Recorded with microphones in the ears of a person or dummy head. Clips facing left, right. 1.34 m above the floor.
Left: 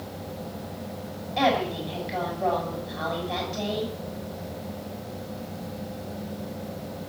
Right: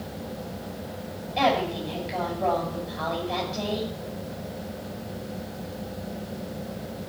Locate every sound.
1.4 s a woman speaking: centre (ahead or behind), 7 m